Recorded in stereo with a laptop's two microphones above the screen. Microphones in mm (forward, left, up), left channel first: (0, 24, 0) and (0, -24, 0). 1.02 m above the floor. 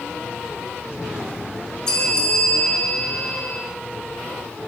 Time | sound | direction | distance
1.9 | a bell | 15° left (ahead or behind) | 7.5 m